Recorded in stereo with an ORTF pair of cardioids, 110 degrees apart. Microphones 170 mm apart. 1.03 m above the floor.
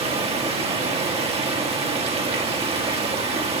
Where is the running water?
35° right, 1.7 m.